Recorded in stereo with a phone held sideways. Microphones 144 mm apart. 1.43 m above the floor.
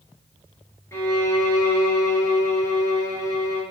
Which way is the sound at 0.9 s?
20° left (ahead or behind).